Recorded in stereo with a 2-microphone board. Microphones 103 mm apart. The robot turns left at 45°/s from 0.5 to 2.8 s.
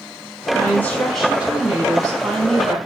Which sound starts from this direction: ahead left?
A woman speaking, at 0.6 s.